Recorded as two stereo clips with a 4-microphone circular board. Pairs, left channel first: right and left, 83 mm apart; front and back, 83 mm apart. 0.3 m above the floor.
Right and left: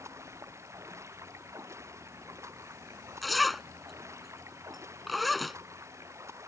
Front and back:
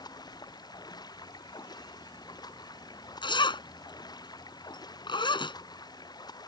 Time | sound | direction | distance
0.0 | running water | 35° left | ?
3.2 | a zipper | straight ahead | ?